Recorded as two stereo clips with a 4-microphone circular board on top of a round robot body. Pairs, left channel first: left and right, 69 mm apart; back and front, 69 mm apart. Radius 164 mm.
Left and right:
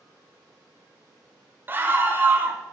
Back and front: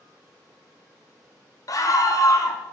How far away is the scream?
About 1.4 m.